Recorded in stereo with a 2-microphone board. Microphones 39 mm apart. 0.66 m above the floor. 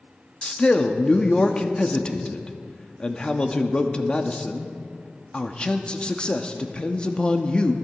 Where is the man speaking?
25° left (ahead or behind), 0.9 m.